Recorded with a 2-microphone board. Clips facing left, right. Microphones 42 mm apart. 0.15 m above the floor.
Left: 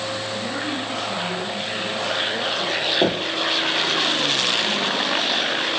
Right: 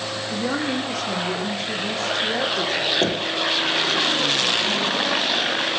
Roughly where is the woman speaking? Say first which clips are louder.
Right 2 dB; right.